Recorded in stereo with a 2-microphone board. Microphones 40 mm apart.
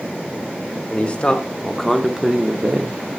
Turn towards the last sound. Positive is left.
turn(degrees=-45)  # may be behind; listen again after turning